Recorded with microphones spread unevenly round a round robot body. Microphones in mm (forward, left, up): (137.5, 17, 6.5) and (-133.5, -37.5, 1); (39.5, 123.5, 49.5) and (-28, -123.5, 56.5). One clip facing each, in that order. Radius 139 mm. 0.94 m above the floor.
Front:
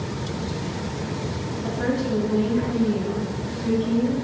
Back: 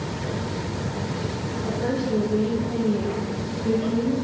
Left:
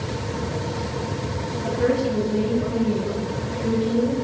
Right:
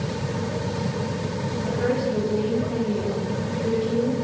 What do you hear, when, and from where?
1.6 s a woman speaking: 45° left, 1.2 m; by 4.1 s 25° right, 1.1 m